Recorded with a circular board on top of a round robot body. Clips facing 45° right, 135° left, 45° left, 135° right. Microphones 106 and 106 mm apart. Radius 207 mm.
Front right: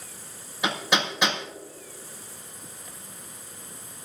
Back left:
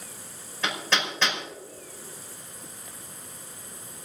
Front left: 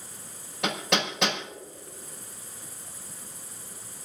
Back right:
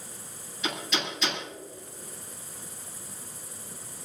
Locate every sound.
0.6 s hammering: 30° left, 5.5 m